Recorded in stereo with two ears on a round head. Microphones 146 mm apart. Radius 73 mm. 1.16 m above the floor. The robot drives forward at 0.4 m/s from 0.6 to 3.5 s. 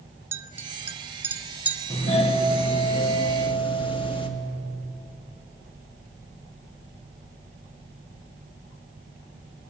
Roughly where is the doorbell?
Left.